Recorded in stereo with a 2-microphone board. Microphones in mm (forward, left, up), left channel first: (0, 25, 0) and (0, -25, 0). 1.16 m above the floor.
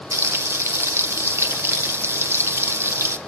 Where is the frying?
60° right (ahead or behind), 0.6 m.